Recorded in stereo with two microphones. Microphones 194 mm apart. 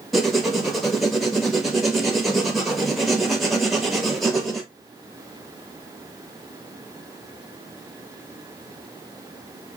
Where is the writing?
Centre (ahead or behind), 1.2 m.